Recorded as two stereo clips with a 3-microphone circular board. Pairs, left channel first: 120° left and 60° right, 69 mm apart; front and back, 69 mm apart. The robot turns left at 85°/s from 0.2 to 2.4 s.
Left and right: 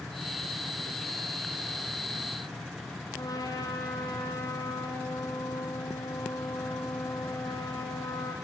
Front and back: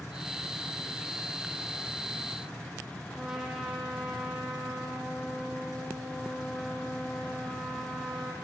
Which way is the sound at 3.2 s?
95° left.